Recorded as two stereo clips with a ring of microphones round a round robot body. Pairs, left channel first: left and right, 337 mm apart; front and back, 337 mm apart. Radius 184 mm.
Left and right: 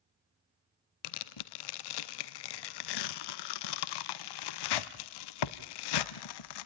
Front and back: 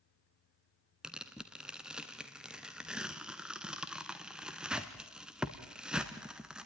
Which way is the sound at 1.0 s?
90° left.